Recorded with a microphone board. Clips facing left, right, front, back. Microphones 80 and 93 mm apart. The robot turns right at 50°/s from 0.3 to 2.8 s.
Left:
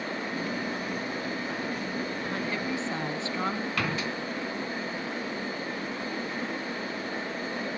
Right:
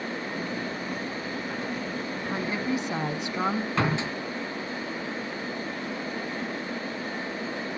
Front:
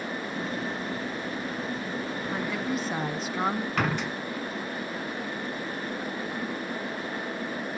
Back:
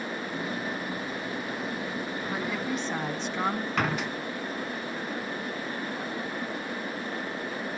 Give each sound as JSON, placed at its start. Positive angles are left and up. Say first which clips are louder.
{"t": 2.3, "sound": "a woman speaking", "louder": "right 6 dB, front 1 dB", "azimuth_deg": -105, "distance_m": 1.0}
{"t": 3.8, "sound": "a door slam", "louder": "right 4 dB, even", "azimuth_deg": -90, "distance_m": 1.3}